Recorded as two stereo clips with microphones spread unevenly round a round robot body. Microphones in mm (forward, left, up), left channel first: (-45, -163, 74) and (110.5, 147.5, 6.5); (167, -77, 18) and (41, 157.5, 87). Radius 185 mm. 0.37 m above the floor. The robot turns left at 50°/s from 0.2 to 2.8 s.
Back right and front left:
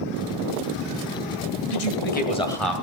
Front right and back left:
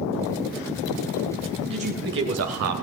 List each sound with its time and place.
1.7 s a man speaking: 165° right, 2 m; by 2.7 s 145° left, 2 m